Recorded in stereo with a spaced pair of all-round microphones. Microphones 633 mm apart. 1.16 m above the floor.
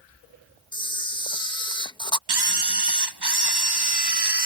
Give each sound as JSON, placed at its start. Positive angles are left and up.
{"t": 0.7, "sound": "a camera shutter", "side_deg": 5}
{"t": 2.3, "sound": "a camera shutter", "side_deg": -40}